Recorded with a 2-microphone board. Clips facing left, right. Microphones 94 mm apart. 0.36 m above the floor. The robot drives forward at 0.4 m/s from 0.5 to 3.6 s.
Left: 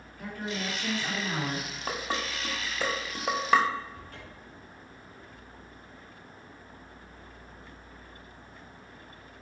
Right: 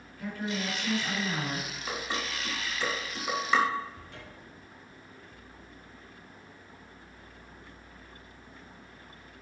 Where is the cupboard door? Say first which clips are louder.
Left 1 dB; 45° left (ahead or behind), 4 m.